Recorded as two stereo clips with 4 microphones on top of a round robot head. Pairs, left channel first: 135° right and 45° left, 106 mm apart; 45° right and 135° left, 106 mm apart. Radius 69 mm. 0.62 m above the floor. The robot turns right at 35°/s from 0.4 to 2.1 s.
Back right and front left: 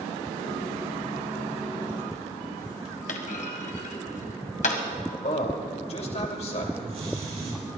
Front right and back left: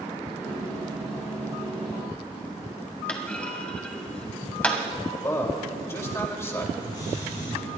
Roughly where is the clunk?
Behind right.